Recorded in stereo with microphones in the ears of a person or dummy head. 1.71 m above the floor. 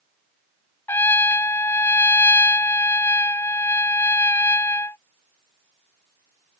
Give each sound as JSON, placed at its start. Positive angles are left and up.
{"t": 0.9, "sound": "a trumpet", "side_deg": 10}